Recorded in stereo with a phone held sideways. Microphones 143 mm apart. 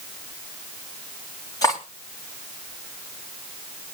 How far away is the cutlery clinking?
About 3 m.